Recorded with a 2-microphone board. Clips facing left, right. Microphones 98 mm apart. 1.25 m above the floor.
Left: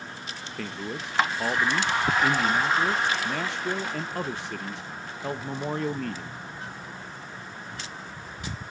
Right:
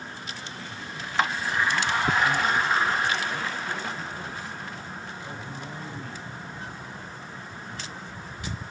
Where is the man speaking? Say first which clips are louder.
Left 4 dB; 75° left (ahead or behind), 0.9 m.